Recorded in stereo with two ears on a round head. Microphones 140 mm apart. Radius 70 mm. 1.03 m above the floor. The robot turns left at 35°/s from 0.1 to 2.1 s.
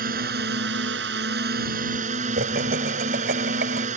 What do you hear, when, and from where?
0.0 s a drone: 60° right; by 4.0 s 130° right
2.4 s laughter: 70° right (ahead or behind)